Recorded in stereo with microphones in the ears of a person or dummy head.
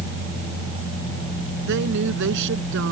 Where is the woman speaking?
75° right (ahead or behind); by 2.9 s 80° right.